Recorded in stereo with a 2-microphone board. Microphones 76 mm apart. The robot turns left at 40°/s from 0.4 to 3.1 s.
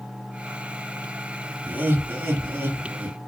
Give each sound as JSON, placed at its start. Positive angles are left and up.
{"t": 1.6, "sound": "laughter", "side_deg": -25, "distance_m": 1.1}